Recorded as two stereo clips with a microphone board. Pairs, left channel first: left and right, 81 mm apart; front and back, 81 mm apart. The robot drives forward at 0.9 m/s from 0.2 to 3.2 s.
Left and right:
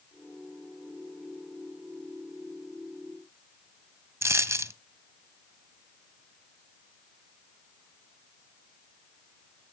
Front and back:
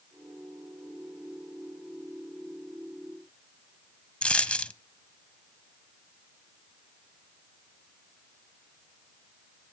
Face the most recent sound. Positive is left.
turn(degrees=-70)